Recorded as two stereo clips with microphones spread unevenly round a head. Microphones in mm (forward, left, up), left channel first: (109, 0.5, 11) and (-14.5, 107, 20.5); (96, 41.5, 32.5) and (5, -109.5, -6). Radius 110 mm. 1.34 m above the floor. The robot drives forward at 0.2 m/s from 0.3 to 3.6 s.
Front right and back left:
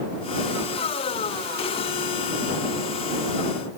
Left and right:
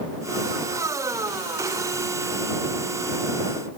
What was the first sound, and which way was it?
Only background noise.